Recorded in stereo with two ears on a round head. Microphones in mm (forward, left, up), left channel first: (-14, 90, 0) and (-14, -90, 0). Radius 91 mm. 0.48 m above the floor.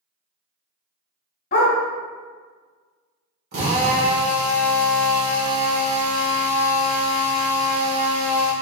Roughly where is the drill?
Right.